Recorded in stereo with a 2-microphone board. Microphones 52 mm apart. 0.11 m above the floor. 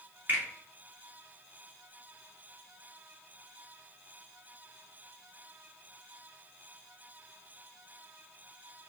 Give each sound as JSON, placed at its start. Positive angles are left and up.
{"t": 0.3, "sound": "a finger snap", "side_deg": -30, "distance_m": 1.5}